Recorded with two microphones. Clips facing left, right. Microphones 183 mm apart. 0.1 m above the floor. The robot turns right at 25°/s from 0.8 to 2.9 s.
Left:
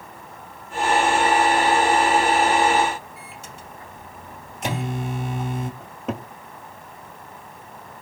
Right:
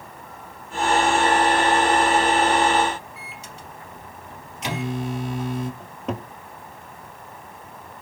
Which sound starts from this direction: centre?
A cupboard door, at 5.8 s.